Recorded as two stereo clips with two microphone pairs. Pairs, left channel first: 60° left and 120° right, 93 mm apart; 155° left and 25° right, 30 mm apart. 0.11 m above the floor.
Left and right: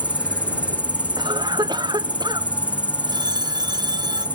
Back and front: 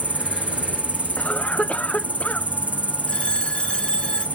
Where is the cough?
160° right.